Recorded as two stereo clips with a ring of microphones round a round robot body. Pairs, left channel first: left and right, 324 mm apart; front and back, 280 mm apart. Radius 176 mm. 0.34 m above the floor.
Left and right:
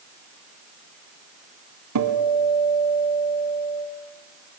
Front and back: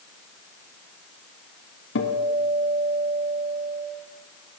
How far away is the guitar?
About 2.5 m.